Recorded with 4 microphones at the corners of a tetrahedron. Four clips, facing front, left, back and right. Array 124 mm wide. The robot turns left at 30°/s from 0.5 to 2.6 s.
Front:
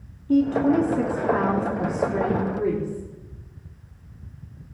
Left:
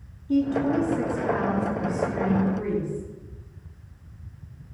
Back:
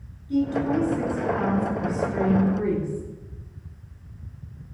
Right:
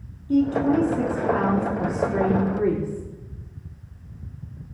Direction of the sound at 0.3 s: 5° right.